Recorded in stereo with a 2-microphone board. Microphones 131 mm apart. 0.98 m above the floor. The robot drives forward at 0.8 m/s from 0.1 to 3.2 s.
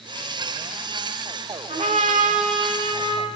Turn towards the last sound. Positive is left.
turn(degrees=-40)  # may be behind; listen again after turning